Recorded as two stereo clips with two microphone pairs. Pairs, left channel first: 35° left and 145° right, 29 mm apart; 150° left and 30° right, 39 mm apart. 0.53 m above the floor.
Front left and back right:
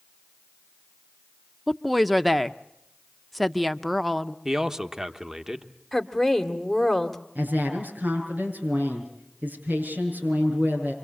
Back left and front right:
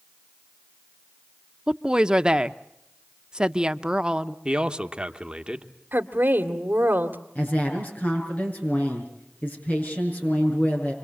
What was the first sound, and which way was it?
A woman speaking, 65° right.